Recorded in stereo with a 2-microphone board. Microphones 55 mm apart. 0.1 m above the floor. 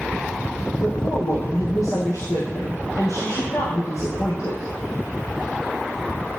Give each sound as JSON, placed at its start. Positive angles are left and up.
{"t": 0.8, "sound": "a woman speaking", "side_deg": 70, "distance_m": 3.5}